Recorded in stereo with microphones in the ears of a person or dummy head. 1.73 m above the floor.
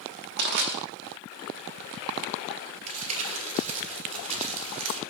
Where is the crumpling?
35° right (ahead or behind), 1.7 m.